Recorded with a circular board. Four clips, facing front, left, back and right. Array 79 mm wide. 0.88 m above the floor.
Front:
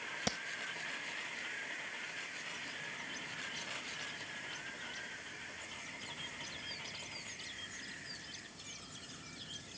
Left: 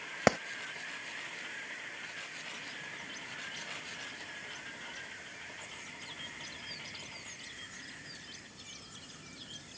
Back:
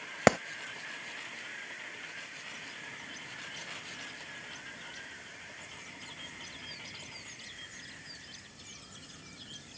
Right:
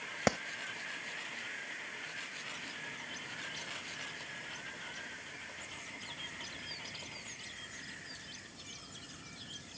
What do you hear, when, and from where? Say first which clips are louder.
0.3 s a clap: left 5 dB, back 17 dB; 165° left